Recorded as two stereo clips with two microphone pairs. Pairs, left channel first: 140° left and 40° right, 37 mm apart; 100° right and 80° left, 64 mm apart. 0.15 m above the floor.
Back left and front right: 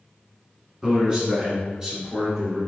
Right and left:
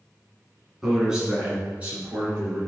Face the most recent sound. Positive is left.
turn(degrees=30)